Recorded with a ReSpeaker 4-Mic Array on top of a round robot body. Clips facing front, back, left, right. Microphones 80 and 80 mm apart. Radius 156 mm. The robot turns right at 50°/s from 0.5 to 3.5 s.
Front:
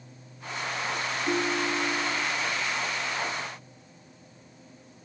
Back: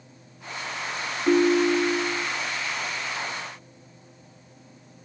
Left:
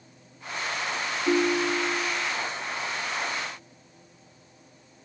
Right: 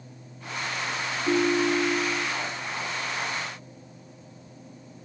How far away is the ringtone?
About 0.8 m.